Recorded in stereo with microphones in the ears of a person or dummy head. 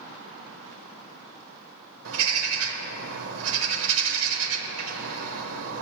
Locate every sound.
2.0 s a bird: 80° right, 1.1 m